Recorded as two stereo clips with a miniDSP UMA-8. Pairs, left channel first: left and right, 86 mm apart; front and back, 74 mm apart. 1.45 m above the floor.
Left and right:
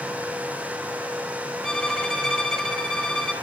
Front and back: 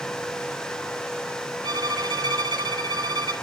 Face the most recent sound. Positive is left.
turn(degrees=170)